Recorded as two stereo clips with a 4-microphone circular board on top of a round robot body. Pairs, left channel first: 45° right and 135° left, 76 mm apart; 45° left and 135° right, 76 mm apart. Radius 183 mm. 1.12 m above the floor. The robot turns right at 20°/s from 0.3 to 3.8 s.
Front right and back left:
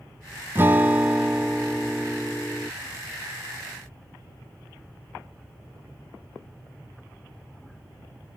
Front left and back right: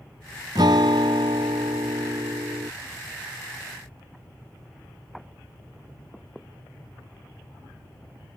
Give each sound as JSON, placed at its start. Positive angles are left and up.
{"t": 0.6, "sound": "a guitar", "azimuth_deg": -165}